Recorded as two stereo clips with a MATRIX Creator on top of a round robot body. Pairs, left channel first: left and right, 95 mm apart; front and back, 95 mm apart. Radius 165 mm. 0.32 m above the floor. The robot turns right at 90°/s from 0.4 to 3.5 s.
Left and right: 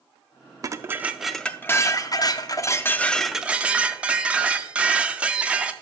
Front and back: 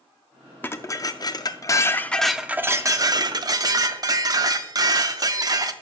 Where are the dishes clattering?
60° right, 0.6 m; by 5.7 s 160° right, 0.6 m.